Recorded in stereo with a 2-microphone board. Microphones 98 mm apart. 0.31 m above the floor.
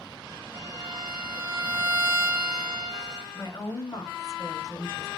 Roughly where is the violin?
Right.